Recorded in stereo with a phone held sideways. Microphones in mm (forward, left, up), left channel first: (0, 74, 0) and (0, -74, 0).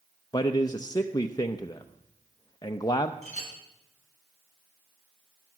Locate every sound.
0.3 s a man speaking: 25° left (ahead or behind), 0.7 m
3.2 s a clink: 50° right (ahead or behind), 5.5 m